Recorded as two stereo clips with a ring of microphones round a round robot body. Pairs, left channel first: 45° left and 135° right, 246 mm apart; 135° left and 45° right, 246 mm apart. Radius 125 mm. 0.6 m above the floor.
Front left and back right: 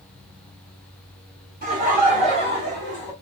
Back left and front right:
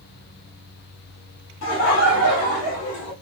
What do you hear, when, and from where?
1.6 s laughter: 175° left, 1.6 m; by 3.1 s 140° left, 1.3 m